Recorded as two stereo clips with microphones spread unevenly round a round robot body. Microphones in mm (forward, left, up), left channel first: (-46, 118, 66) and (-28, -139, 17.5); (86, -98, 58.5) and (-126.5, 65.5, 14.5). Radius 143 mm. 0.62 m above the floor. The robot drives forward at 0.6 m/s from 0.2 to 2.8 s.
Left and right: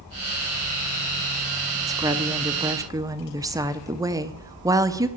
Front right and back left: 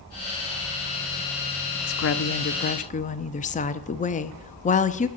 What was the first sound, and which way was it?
A woman speaking, 25° right.